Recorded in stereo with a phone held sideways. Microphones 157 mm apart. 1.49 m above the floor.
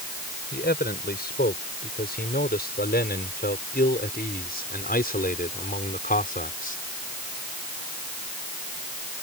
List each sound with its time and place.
0.5 s a man speaking: 80° left; by 6.8 s 60° left (ahead or behind)